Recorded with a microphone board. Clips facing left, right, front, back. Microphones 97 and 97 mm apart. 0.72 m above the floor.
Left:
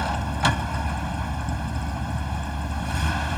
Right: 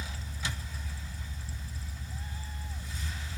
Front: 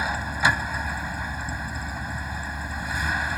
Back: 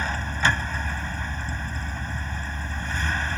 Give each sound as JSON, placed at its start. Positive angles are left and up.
{"t": 0.0, "sound": "a vehicle", "azimuth_deg": 80}